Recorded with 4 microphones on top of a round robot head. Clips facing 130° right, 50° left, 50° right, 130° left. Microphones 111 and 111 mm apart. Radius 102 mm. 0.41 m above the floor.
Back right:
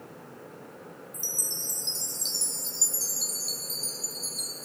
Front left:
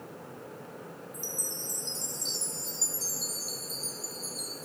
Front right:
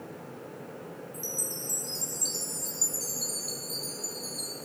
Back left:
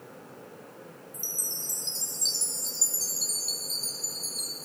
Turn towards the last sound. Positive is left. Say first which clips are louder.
# front left 2 dB, front right 6 dB
turn(degrees=-165)